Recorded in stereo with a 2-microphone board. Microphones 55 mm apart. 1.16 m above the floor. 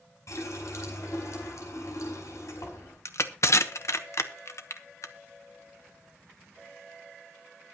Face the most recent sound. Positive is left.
turn(degrees=60)  # may be behind; listen again after turning